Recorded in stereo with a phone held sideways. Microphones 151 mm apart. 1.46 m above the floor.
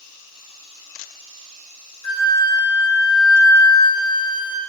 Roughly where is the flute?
Right.